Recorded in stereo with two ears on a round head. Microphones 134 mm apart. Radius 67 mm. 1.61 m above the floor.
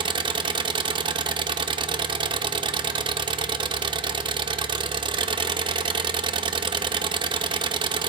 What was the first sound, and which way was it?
An engine running, 30° right (ahead or behind).